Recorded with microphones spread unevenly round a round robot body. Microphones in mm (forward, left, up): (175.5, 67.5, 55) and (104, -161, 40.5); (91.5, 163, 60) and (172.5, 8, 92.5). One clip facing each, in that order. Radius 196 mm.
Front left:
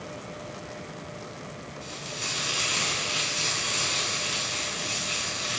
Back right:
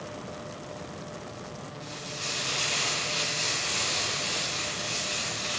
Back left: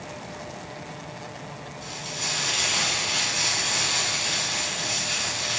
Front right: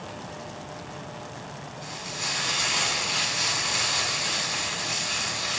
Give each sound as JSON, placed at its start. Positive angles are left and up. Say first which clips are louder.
{"t": 1.8, "sound": "frying", "louder": "even, back left 1 dB", "azimuth_deg": 50, "distance_m": 3.0}